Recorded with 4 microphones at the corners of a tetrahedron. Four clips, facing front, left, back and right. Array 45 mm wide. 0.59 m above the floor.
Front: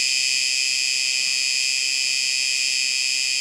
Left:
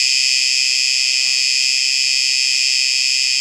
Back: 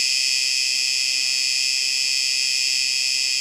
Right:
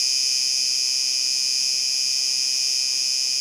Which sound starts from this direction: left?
An insect, at 0.0 s.